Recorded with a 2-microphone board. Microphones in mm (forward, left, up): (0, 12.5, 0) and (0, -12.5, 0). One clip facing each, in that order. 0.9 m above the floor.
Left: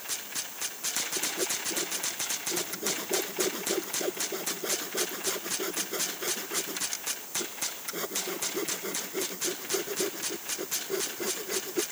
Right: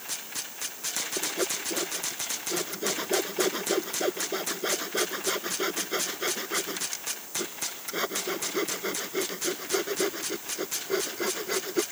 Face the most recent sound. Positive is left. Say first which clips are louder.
# right 2 dB
turn(degrees=-30)  # may be behind; listen again after turning